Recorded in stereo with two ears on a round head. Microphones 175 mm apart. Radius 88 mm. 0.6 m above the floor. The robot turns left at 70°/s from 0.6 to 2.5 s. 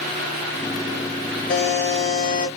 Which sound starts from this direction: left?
A buzzer, at 1.5 s.